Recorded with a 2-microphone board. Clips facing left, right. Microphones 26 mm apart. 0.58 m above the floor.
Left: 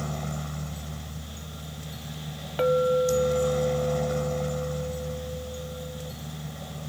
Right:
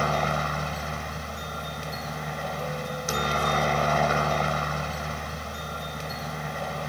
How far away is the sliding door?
I don't hear a sliding door.